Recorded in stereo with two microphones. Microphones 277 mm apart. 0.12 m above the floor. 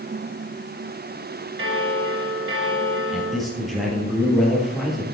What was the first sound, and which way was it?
A bell, 50° right (ahead or behind).